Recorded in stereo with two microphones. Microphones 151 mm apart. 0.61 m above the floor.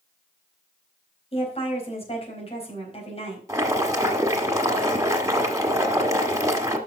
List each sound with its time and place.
1.3 s a woman speaking: 40° left (ahead or behind), 4 m
3.5 s boiling: 20° right (ahead or behind), 1.5 m